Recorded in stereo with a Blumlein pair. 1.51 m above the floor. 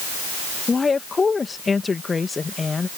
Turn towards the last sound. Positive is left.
turn(degrees=15)